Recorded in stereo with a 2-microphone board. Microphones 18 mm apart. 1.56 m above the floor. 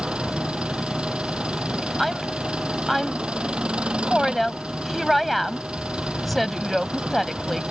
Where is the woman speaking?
5° left (ahead or behind).